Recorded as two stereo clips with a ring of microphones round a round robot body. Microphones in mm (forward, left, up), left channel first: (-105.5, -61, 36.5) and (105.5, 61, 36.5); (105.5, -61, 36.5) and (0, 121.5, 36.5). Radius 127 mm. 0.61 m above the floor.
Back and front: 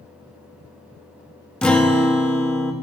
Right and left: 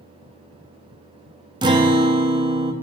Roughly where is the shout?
I don't hear a shout.